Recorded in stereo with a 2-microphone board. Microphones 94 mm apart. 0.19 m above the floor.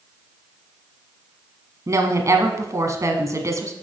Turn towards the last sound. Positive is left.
turn(degrees=-35)  # may be behind; listen again after turning